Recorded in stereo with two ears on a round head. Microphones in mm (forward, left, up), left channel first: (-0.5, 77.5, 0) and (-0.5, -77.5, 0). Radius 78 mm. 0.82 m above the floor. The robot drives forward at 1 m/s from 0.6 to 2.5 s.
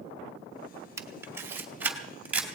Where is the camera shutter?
15° right (ahead or behind), 1.2 m; by 2.5 s 10° right (ahead or behind), 2.5 m.